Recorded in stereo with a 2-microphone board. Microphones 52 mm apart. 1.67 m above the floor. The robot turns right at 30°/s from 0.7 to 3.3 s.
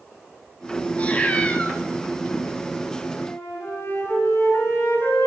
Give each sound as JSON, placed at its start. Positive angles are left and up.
{"t": 1.0, "sound": "a cat meowing", "side_deg": 25, "distance_m": 1.1}
{"t": 3.2, "sound": "a flute", "side_deg": 75, "distance_m": 6.5}